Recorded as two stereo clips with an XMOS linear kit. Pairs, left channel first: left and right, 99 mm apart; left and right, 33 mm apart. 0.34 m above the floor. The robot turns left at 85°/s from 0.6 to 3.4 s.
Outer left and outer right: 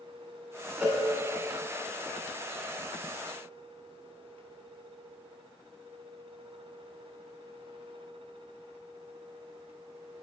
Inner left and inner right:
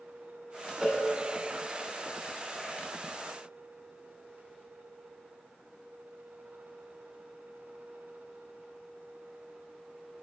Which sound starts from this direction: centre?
A cowbell, at 0.8 s.